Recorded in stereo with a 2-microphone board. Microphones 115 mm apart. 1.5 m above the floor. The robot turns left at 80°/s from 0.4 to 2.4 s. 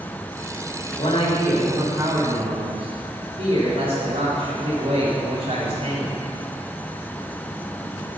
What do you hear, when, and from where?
1.0 s a man speaking: 55° left, 6.5 m; by 6.2 s 60° right, 6.5 m